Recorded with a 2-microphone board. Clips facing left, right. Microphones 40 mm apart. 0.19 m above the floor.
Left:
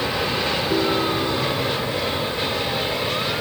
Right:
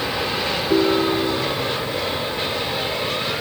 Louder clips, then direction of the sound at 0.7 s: Right 5 dB; 25° right (ahead or behind).